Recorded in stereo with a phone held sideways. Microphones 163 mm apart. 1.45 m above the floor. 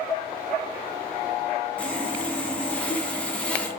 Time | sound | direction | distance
1.8 | sawing | 5° left (ahead or behind) | 0.5 m